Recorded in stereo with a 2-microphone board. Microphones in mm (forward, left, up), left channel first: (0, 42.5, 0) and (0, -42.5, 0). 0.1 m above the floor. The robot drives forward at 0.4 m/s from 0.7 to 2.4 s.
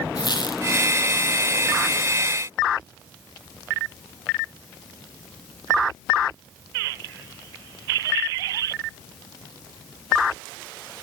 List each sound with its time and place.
0.2 s a squeak: 55° left (ahead or behind), 0.9 m